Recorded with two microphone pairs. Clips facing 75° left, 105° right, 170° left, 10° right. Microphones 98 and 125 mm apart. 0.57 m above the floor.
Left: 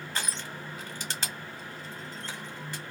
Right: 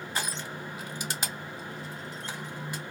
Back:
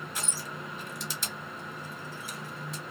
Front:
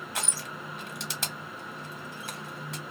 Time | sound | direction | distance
0.1 | crushing | 30° right | 0.8 m